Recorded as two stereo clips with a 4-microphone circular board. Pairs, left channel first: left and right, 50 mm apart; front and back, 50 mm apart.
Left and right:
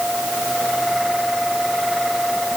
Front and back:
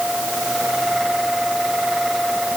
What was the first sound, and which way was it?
Only background noise.